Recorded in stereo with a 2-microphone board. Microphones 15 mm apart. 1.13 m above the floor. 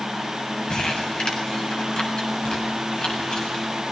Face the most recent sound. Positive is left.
turn(degrees=80)